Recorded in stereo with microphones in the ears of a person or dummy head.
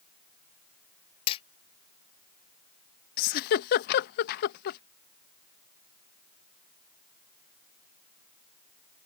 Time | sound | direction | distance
1.3 | hammering | 25° left (ahead or behind) | ?
3.2 | a giggle | 50° left (ahead or behind) | ?